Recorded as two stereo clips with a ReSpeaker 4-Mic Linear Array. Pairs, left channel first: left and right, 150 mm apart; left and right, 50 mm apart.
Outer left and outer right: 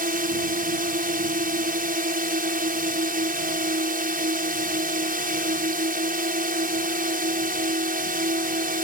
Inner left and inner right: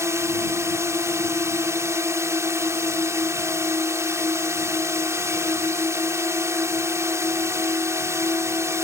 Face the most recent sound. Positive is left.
turn(degrees=-70)  # may be behind; listen again after turning